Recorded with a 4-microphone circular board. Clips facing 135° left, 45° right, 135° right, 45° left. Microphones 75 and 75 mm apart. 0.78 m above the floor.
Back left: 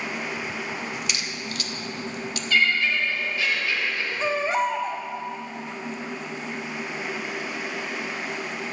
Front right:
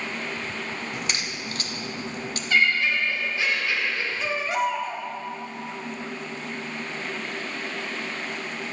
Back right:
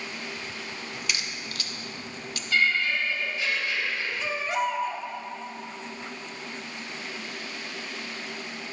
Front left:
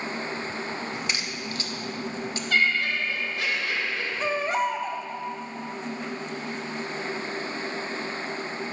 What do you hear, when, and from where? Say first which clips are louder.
0.9 s a crack: even, front left 3 dB; 5° right, 0.9 m
2.5 s laughter: even, even; 25° left, 4 m
4.2 s a baby crying: back left 3 dB, front left 3 dB; 85° left, 1.1 m